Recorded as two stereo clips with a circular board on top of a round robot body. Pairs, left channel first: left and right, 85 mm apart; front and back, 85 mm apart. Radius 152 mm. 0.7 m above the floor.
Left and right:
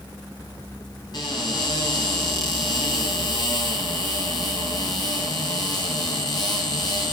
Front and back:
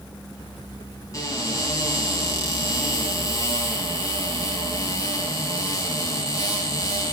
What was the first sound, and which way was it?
A cupboard door, 50° left.